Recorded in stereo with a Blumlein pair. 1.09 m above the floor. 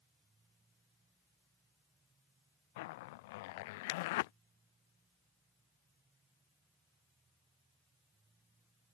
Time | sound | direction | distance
0.0 | a machine running | 15° right | ?
2.8 | a zipper | 50° left | ?